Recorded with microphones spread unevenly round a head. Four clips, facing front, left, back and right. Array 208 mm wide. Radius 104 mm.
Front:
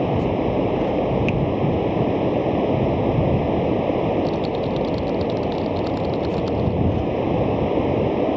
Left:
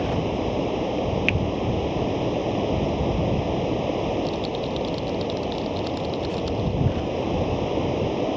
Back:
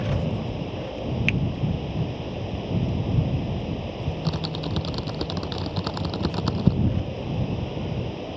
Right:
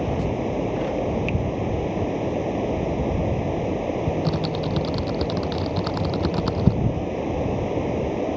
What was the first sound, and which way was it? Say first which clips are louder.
Running water: even, front 8 dB; 5° left.